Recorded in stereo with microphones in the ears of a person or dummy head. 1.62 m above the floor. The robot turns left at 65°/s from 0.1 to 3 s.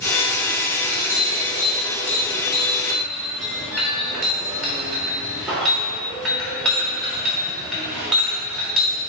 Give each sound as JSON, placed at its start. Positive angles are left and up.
{"t": 0.8, "sound": "a clink", "side_deg": 30, "distance_m": 1.8}